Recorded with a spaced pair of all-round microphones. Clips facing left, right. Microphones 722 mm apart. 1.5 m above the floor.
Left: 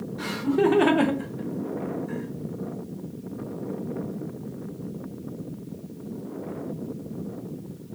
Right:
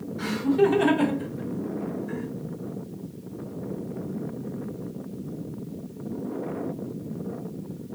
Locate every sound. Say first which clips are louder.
0.2 s laughter: right 1 dB; 60° left (ahead or behind), 1.4 m; by 2.3 s 5° left (ahead or behind), 1.1 m